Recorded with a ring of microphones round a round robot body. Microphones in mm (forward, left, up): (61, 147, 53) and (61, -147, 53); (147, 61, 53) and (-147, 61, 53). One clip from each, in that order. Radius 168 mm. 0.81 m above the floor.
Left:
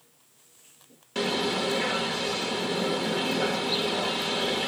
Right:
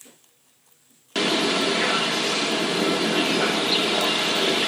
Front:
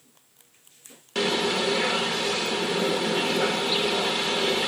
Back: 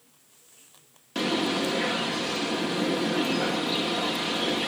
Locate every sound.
1.1 s a bird: 75° right, 0.9 m